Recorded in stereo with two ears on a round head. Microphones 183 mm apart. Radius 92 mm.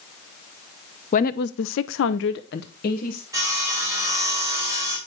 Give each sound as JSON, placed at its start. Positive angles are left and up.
{"t": 1.1, "sound": "a woman speaking", "side_deg": 40, "distance_m": 0.7}
{"t": 3.3, "sound": "sawing", "side_deg": -15, "distance_m": 3.5}